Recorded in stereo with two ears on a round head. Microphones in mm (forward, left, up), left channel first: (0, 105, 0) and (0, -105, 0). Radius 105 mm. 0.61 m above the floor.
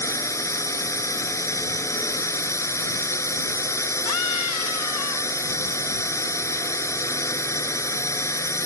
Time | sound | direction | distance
0.0 | a drone | 15° left (ahead or behind) | ?
4.0 | a scream | 80° left | ?